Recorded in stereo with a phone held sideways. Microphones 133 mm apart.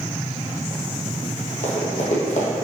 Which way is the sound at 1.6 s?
60° left (ahead or behind).